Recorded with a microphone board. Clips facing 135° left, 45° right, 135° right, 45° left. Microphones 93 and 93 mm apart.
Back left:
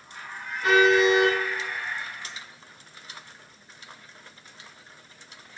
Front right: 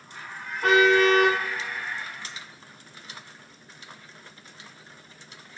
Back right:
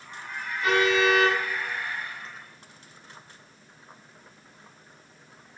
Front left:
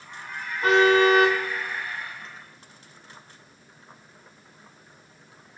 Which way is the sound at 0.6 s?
10° right.